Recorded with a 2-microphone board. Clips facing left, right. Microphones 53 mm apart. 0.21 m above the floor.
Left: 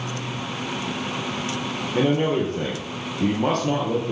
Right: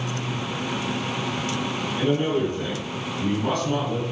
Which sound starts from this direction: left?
A man speaking, at 1.9 s.